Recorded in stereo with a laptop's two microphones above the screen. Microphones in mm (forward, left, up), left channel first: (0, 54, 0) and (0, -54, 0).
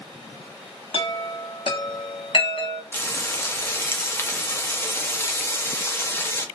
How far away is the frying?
About 0.6 m.